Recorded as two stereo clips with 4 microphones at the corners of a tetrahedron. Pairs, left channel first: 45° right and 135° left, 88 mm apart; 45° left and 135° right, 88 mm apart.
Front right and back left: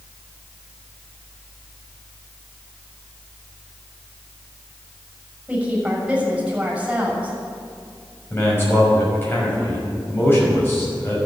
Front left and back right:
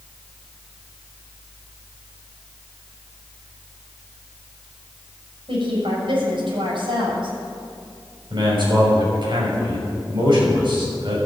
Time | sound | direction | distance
5.5 | a woman speaking | 145° right | 6.5 m
8.3 | a man speaking | 110° right | 6 m